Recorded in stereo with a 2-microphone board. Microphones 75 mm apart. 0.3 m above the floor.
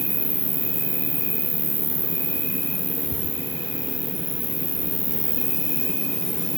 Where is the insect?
65° right (ahead or behind), 2.0 m.